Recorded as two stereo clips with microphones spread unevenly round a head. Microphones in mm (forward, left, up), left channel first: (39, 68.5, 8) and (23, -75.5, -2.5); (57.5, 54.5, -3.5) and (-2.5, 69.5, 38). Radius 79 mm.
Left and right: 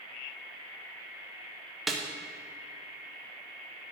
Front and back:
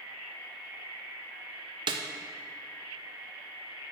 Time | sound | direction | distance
1.9 | a snare drum | 175° left | 0.9 m